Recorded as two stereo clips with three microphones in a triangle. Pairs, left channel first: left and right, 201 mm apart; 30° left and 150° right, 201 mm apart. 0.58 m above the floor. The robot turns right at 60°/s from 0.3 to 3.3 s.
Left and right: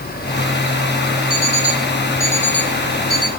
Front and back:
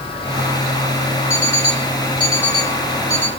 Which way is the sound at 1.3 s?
45° left.